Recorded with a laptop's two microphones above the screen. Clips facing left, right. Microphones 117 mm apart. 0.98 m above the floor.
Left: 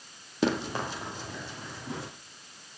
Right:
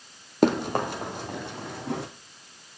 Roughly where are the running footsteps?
Right.